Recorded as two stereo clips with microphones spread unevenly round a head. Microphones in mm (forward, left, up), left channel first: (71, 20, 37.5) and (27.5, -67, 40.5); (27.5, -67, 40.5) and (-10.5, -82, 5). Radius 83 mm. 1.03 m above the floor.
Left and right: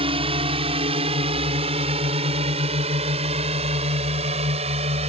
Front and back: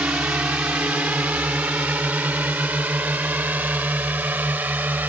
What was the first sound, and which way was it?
A drone, 110° right.